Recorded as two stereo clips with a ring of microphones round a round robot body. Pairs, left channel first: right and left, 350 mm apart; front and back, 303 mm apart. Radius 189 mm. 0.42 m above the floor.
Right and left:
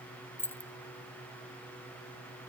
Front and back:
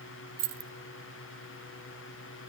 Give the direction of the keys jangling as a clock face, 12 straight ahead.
6 o'clock.